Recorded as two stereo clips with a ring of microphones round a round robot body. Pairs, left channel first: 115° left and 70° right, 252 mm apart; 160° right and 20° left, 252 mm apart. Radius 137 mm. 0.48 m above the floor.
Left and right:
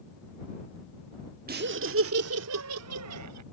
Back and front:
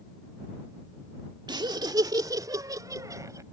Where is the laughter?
40° right; by 3.4 s 55° right.